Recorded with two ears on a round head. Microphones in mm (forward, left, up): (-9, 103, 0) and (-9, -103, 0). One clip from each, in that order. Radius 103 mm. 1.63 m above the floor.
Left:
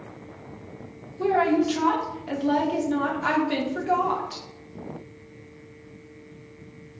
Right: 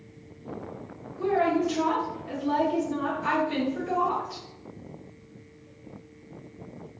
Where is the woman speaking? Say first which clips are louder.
Left 3 dB; 35° left (ahead or behind), 1.2 m.